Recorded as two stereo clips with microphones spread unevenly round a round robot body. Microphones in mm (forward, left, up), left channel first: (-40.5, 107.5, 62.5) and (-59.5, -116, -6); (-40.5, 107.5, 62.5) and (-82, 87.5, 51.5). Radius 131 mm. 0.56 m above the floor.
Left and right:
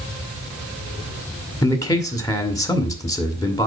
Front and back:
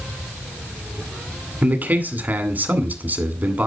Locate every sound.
1.6 s a man speaking: 170° left, 2 m